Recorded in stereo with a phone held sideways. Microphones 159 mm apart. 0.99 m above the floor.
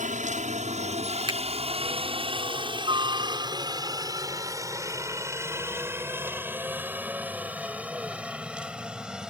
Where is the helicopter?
50° right (ahead or behind); by 9.3 s 5° right (ahead or behind).